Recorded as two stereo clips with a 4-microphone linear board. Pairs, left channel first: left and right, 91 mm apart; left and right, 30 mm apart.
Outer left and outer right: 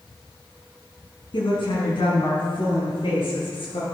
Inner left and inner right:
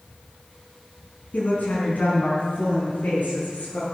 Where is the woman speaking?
70° left (ahead or behind), 5.5 m; by 3.8 s 80° left, 8 m.